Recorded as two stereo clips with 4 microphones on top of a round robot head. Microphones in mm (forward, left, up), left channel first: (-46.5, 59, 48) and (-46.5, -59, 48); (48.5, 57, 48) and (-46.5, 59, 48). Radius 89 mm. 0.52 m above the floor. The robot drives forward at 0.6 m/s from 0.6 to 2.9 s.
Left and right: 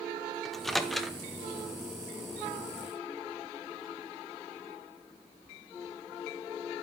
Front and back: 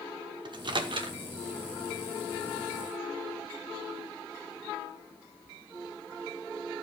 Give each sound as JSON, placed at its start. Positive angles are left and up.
{"t": 0.5, "sound": "a microwave", "azimuth_deg": 180, "distance_m": 1.0}